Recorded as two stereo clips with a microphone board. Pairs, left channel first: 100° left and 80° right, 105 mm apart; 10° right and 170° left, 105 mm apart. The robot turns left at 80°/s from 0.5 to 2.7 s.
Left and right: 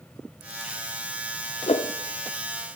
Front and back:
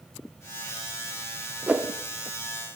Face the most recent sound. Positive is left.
turn(degrees=20)